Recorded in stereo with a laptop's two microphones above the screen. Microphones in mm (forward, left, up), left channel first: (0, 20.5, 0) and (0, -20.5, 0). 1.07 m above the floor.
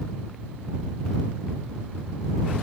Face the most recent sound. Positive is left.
No sound to turn to.